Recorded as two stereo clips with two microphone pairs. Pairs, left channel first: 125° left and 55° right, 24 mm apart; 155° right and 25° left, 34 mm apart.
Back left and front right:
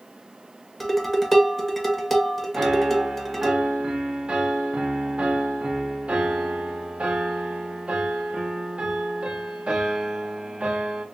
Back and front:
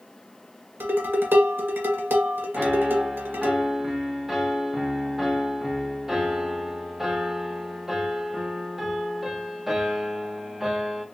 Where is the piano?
50° right, 0.8 m.